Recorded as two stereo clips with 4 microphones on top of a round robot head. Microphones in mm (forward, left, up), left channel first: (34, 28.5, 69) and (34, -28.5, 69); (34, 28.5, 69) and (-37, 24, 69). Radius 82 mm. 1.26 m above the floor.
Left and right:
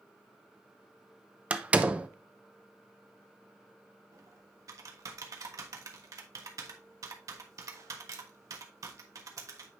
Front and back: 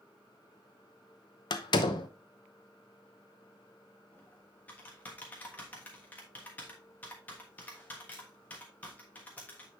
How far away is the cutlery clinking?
No cutlery clinking in this recording.